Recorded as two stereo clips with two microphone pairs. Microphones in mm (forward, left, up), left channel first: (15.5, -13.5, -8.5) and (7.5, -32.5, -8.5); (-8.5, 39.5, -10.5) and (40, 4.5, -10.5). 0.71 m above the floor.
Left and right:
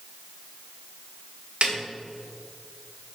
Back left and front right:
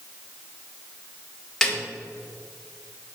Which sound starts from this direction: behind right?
A snare drum, at 1.6 s.